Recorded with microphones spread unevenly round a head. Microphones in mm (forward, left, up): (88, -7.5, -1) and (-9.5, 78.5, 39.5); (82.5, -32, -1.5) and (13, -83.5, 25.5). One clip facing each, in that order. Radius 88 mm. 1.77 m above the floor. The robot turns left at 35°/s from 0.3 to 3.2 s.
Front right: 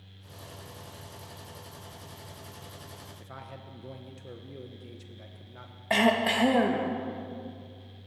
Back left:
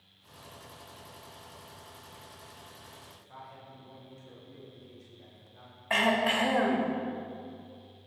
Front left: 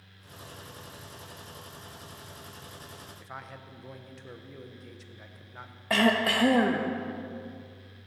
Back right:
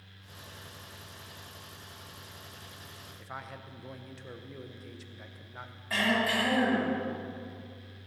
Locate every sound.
3.2 s a man speaking: 70° right, 1.0 m
5.9 s throat clearing: 20° left, 1.5 m